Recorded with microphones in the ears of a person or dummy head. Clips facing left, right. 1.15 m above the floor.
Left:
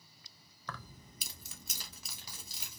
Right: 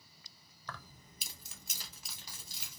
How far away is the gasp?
I don't hear a gasp.